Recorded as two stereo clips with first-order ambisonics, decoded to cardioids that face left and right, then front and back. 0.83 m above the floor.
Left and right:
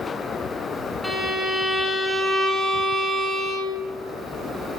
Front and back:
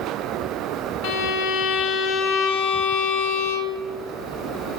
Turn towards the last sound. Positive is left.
turn(degrees=10)